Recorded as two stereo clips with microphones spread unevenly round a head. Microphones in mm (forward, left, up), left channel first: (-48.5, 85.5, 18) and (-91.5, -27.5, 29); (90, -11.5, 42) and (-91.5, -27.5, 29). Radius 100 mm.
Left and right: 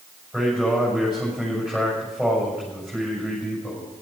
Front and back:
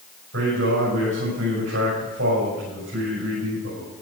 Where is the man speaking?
155° left, 7 m.